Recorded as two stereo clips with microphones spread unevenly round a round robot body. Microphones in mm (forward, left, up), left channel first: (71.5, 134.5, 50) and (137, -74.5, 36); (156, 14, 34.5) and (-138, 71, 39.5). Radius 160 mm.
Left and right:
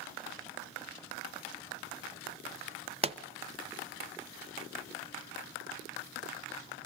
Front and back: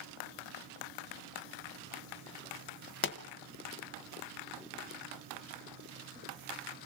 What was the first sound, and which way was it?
A pop, 30° right.